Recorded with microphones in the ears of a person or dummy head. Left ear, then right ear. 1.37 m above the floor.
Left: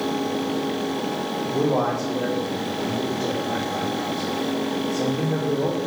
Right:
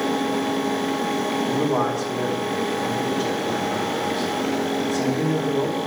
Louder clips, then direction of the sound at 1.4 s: Left 2 dB; 75° right (ahead or behind).